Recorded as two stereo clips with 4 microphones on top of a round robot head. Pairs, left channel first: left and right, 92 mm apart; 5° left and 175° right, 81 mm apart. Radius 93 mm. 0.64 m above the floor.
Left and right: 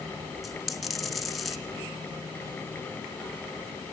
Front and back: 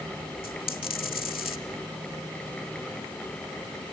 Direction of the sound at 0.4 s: Straight ahead.